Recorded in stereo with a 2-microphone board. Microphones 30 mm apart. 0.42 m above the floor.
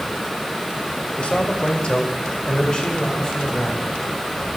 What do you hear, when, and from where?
1.2 s a man speaking: 45° left (ahead or behind), 1.7 m; by 3.9 s 20° left (ahead or behind), 3 m